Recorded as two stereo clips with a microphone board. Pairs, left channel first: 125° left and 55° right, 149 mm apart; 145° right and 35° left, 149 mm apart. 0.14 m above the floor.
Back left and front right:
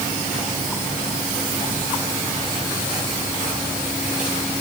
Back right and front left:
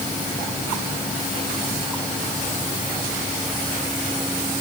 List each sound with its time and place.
Only background noise.